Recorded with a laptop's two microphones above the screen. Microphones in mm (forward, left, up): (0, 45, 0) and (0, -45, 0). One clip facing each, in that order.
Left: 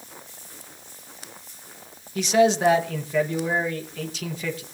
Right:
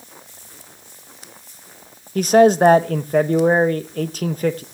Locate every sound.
2.1 s a man speaking: 50° right (ahead or behind), 0.8 m